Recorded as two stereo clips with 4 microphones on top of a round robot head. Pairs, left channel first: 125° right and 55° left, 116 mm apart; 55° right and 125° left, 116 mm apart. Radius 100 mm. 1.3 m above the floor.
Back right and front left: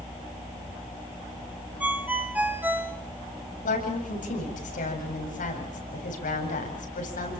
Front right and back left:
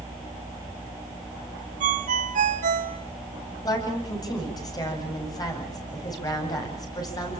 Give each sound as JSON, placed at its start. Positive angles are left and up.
{"t": 1.8, "sound": "a ringtone", "azimuth_deg": 135, "distance_m": 1.9}
{"t": 3.6, "sound": "a woman speaking", "azimuth_deg": -115, "distance_m": 8.5}